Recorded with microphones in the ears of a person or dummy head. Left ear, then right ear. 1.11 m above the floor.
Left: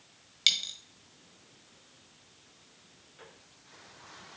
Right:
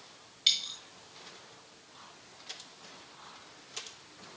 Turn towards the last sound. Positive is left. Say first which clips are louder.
# left 1 dB
turn(degrees=35)  # may be behind; listen again after turning